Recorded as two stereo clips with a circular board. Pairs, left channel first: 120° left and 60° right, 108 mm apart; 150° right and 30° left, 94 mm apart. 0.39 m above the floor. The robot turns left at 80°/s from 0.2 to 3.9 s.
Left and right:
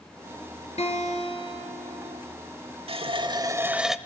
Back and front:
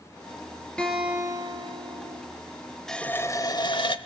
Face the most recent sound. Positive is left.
turn(degrees=-145)